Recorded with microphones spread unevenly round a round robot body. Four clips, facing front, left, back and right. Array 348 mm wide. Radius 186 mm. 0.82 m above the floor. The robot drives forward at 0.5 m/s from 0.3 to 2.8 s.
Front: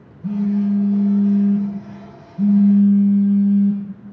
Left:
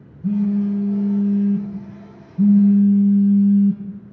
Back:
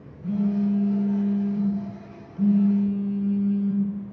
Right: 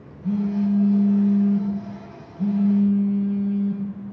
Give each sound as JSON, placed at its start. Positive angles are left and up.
{"t": 0.2, "sound": "a phone buzzing", "azimuth_deg": 65, "distance_m": 4.0}